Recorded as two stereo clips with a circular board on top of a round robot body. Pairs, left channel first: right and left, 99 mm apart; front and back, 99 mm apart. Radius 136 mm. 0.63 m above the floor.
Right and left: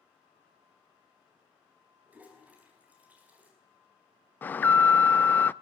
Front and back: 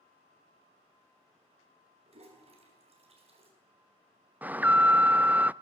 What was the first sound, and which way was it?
A toilet flushing, 165° left.